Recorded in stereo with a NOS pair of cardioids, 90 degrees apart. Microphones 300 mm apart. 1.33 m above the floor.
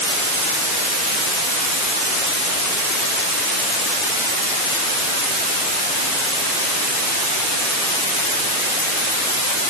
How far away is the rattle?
No rattle in this recording.